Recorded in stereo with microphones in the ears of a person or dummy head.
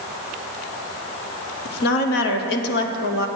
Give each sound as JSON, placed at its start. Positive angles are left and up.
{"t": 1.6, "sound": "a woman speaking", "side_deg": 60, "distance_m": 0.9}